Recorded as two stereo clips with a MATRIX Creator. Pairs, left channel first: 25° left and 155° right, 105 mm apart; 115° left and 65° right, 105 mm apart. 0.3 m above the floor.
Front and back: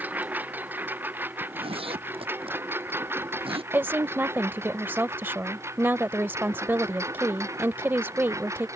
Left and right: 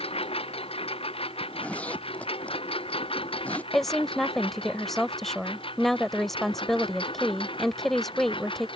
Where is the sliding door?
I don't hear a sliding door.